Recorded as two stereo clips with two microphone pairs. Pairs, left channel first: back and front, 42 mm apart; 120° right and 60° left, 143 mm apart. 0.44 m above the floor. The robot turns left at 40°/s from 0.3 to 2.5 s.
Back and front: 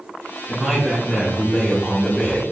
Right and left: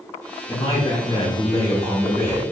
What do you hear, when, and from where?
0.5 s a man speaking: 95° right, 1.1 m; by 2.4 s 175° right, 1.1 m